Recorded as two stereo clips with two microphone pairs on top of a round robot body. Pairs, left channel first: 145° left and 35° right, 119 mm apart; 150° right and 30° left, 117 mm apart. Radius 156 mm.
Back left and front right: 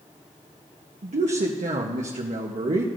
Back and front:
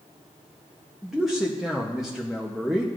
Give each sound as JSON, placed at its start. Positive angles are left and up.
{"t": 1.0, "sound": "a man speaking", "azimuth_deg": -60, "distance_m": 1.0}